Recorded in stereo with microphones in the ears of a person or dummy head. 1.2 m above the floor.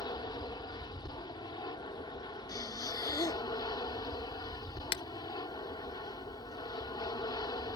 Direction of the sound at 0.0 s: 25° left (ahead or behind).